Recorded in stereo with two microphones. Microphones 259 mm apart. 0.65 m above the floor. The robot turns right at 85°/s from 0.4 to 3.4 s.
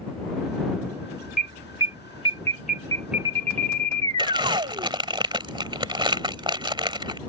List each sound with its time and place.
1.4 s an alarm: 35° left; by 4.9 s 155° right
4.2 s crumpling: 20° right (ahead or behind)